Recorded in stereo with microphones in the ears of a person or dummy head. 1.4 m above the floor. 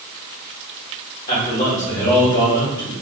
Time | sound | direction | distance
1.3 | a man speaking | 45° left (ahead or behind) | 2.0 m